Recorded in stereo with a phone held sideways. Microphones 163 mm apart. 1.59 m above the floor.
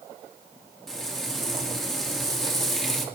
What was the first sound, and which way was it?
Frying, centre (ahead or behind).